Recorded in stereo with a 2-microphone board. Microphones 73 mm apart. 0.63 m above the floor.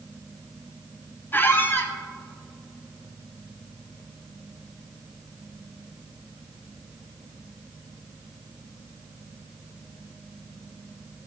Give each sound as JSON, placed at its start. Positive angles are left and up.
{"t": 1.3, "sound": "a squeak", "side_deg": 30, "distance_m": 0.6}